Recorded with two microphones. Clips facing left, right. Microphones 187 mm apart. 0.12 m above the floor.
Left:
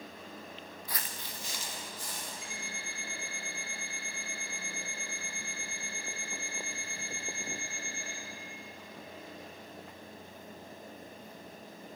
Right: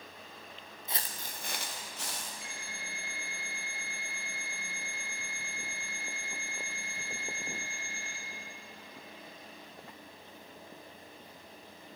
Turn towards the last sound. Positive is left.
turn(degrees=-70)  # may be behind; listen again after turning